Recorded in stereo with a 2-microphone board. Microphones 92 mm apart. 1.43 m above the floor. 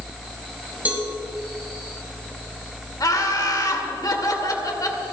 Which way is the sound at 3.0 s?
45° left (ahead or behind).